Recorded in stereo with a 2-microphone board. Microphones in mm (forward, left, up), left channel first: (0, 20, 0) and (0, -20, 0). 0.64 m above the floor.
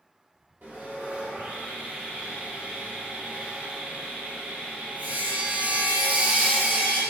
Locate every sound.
0.6 s sawing: 60° right (ahead or behind), 1.0 m